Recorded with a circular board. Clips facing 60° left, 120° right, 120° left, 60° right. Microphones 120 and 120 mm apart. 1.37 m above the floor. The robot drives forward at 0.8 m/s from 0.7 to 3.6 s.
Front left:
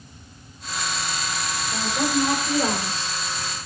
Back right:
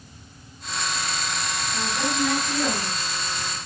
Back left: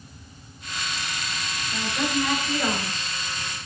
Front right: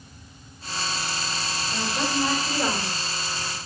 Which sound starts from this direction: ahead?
A woman speaking, at 1.7 s.